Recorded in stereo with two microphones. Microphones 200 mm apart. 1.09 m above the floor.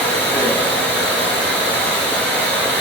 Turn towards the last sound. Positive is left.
turn(degrees=5)  # may be behind; listen again after turning